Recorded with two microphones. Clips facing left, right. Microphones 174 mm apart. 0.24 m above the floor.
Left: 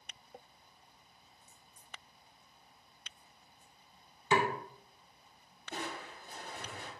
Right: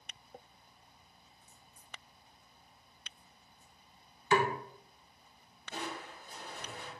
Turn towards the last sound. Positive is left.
turn(degrees=55)  # may be behind; listen again after turning